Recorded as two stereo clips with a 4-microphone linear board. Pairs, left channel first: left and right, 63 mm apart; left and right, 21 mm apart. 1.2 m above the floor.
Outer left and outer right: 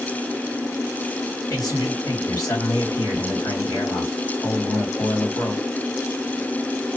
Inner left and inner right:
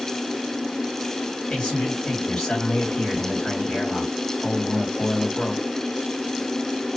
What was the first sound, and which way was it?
A man speaking, 75° left (ahead or behind).